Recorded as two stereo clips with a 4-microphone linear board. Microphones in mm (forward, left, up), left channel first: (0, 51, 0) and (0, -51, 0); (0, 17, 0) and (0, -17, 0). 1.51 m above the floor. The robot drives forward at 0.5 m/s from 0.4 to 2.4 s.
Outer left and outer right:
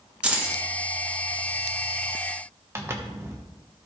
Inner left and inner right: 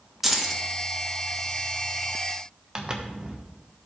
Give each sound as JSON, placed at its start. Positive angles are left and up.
{"t": 0.2, "sound": "keys jangling", "side_deg": -10, "distance_m": 1.2}
{"t": 2.8, "sound": "a zipper", "side_deg": -25, "distance_m": 1.2}